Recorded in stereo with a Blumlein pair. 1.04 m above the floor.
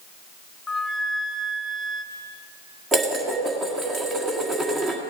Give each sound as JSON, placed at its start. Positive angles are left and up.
{"t": 0.7, "sound": "a flute", "azimuth_deg": 10, "distance_m": 1.0}
{"t": 2.9, "sound": "dishes clattering", "azimuth_deg": -20, "distance_m": 1.5}